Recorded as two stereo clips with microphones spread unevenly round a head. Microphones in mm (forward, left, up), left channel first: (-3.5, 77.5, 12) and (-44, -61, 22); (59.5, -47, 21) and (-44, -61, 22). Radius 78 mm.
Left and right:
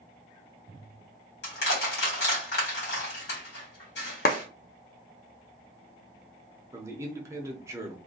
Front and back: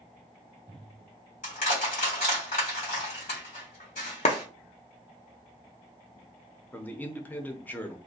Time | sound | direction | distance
1.4 | crushing | 45° left | 1.5 m
4.2 | a clap | 45° left | 0.6 m
6.7 | a man speaking | 45° right | 0.7 m